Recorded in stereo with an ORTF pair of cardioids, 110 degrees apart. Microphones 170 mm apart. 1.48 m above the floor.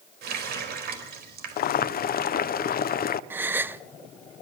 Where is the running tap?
70° right, 4 m.